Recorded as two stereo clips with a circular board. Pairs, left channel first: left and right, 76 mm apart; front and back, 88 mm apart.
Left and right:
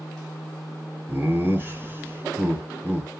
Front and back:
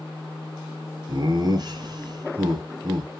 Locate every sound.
1.1 s laughter: 145° right, 1.9 m